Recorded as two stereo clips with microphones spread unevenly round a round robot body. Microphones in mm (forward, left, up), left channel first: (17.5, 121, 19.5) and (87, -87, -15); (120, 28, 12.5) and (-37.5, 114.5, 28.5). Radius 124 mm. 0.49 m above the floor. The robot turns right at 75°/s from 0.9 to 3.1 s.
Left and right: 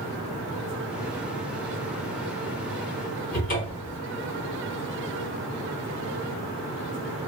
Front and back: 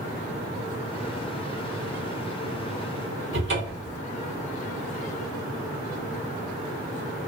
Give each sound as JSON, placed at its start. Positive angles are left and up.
{"t": 3.3, "sound": "a cupboard door", "azimuth_deg": 170, "distance_m": 1.0}